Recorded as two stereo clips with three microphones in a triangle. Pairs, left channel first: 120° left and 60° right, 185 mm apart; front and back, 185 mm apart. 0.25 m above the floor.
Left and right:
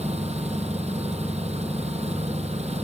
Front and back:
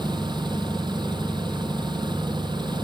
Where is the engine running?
115° right.